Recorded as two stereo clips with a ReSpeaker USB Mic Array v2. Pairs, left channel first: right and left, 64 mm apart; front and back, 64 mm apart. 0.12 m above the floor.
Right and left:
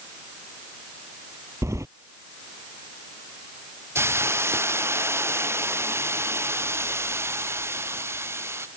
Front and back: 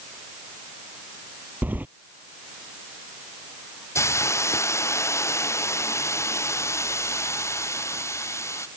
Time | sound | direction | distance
1.6 | keys jangling | 120° left | ?
4.0 | a hiss | 40° left | ?